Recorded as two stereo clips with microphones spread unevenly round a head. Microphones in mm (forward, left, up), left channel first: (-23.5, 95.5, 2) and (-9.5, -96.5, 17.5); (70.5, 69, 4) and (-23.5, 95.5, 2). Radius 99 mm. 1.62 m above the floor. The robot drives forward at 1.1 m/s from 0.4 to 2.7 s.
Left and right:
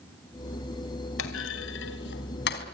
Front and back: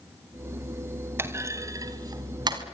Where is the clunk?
100° left, 3 m; by 2.6 s 130° left, 3.5 m.